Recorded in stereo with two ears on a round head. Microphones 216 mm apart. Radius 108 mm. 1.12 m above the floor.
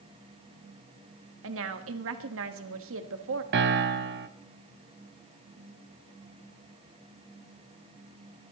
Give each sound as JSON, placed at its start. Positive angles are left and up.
{"t": 1.4, "sound": "a woman speaking", "side_deg": -60, "distance_m": 1.5}
{"t": 3.5, "sound": "a piano", "side_deg": -45, "distance_m": 0.7}